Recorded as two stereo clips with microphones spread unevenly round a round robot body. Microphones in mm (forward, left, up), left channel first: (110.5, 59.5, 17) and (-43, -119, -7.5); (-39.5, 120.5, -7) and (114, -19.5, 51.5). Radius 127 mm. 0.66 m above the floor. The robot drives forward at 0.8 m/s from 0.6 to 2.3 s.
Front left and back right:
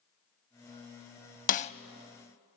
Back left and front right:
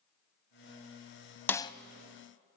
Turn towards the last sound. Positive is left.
turn(degrees=150)